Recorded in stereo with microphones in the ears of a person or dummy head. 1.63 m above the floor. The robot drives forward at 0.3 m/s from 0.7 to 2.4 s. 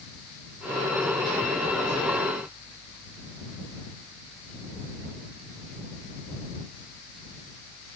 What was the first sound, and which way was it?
Only background noise.